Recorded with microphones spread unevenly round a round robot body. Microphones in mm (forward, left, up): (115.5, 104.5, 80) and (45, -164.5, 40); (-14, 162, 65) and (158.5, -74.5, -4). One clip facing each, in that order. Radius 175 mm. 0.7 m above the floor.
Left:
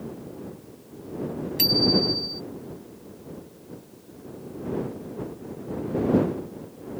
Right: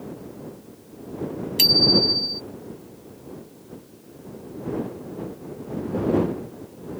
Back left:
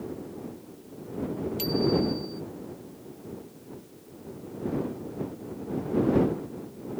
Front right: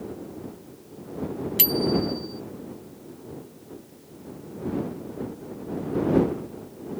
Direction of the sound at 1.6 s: 65° right.